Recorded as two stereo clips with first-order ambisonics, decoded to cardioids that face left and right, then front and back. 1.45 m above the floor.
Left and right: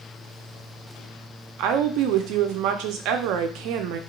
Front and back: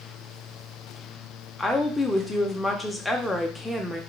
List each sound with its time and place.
1.6 s a woman speaking: 85° right, 0.8 m